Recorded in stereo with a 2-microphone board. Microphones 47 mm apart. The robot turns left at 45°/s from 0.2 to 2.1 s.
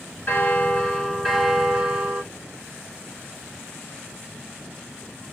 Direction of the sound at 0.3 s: 45° left.